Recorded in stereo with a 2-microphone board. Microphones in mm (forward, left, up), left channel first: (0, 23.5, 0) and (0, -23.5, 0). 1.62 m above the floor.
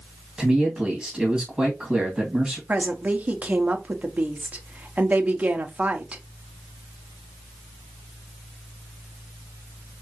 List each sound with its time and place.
0.4 s a man speaking: 5° right (ahead or behind), 2 m
2.7 s a woman speaking: 30° right (ahead or behind), 1.1 m